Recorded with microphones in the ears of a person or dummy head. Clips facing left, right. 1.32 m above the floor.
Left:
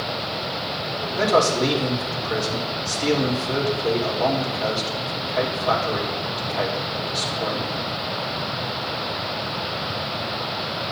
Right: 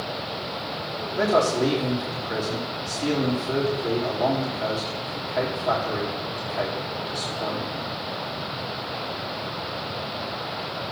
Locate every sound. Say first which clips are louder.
1.1 s a man speaking: left 1 dB; 15° right (ahead or behind), 3.5 m